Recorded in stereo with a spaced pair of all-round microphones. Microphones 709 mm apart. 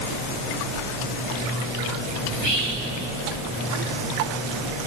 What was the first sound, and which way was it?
Whispering, 60° right (ahead or behind).